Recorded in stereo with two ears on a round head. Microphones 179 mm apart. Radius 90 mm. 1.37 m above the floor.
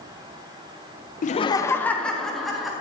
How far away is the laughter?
About 0.6 m.